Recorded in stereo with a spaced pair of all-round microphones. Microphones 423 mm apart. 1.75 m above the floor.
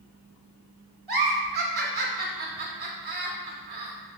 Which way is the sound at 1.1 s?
60° right (ahead or behind).